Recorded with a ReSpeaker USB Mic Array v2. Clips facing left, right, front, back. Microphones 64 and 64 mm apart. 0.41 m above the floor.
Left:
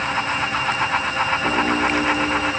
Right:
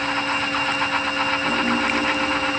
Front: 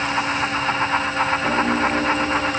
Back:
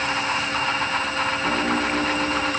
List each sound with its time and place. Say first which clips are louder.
1.4 s a piano: left 2 dB, front 3 dB; 65° left, 1.5 m